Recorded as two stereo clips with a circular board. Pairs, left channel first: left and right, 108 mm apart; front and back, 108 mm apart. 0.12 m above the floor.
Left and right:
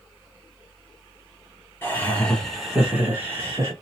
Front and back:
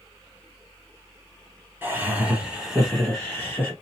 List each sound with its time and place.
1.8 s laughter: 135° left, 1.2 m; by 3.7 s 65° right, 1.2 m